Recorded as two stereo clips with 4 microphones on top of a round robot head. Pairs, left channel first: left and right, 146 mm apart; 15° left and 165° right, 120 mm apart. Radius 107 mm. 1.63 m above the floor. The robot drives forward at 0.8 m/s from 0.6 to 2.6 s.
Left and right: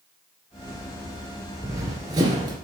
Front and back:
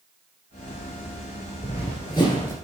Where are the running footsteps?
30° right, 2 m; by 2.5 s 55° right, 1.7 m.